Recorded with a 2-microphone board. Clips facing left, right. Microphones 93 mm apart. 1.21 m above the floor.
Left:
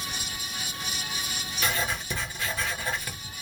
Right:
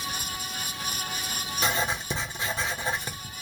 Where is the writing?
25° right (ahead or behind), 0.8 m.